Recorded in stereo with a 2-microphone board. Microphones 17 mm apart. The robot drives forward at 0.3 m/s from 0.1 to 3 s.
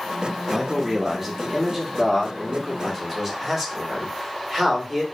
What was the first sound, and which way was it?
A man speaking, 15° right (ahead or behind).